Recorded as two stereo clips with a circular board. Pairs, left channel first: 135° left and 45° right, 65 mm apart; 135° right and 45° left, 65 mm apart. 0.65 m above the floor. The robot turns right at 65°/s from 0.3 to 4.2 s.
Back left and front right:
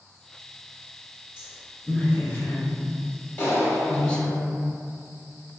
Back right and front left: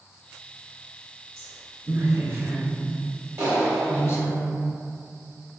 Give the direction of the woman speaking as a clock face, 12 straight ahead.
11 o'clock.